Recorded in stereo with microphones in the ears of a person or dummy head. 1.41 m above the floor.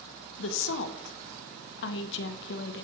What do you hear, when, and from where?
0.4 s a woman speaking: 70° left (ahead or behind), 0.7 m